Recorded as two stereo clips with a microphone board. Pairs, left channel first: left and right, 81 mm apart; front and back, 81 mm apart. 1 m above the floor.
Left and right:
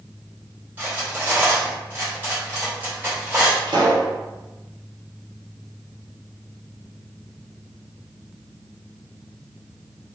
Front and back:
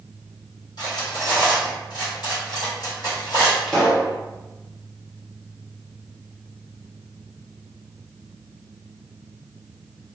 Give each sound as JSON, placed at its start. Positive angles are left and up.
{"t": 0.8, "sound": "cutlery clinking", "azimuth_deg": -25, "distance_m": 1.8}
{"t": 3.7, "sound": "a pop", "azimuth_deg": -85, "distance_m": 1.3}